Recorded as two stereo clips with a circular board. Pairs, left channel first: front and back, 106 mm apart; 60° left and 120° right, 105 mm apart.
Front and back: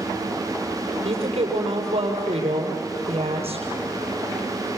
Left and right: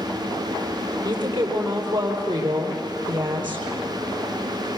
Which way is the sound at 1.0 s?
160° right.